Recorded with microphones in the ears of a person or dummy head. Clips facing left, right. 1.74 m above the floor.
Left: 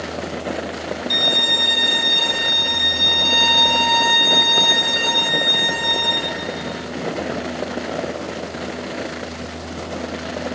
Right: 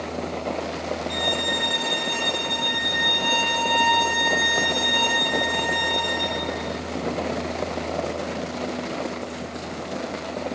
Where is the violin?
25° left (ahead or behind), 2.5 m.